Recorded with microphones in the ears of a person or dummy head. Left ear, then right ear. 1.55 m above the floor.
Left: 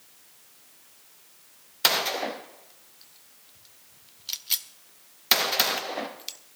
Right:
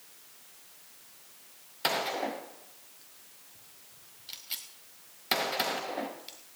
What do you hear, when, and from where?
1.8 s a gunshot: 25° left (ahead or behind), 0.6 m